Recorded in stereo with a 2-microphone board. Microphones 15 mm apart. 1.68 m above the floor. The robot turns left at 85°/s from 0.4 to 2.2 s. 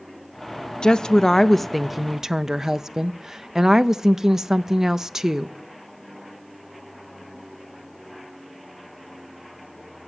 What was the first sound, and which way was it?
A woman speaking, 85° left.